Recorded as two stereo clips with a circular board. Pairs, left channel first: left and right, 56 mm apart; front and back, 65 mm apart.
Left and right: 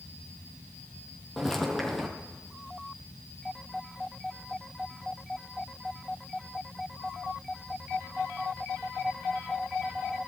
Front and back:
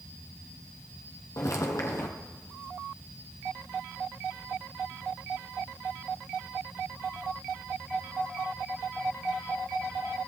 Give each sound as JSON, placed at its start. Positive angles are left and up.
{"t": 1.4, "sound": "footsteps", "azimuth_deg": 5, "distance_m": 2.0}